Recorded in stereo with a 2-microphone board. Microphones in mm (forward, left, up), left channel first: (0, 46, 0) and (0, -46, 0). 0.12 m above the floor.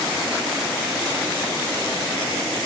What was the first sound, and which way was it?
Only background noise.